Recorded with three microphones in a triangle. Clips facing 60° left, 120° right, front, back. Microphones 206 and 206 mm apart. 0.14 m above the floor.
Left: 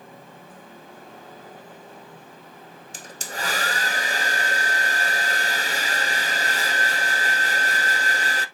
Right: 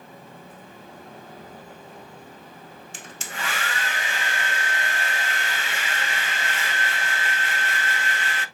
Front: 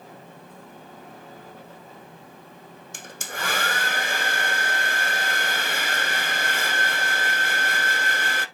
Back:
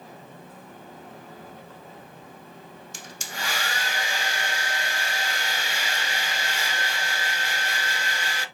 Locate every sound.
2.9 s a hair dryer: 15° left, 0.7 m